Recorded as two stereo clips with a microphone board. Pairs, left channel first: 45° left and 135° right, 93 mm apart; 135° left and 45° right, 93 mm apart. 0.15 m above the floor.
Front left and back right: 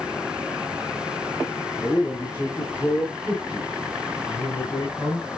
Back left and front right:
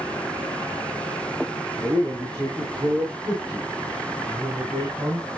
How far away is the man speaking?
About 5 m.